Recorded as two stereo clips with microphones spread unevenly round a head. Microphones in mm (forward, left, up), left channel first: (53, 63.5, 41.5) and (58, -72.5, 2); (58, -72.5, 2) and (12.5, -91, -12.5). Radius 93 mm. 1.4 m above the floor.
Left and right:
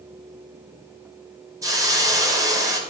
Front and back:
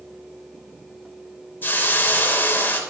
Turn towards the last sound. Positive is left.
turn(degrees=-20)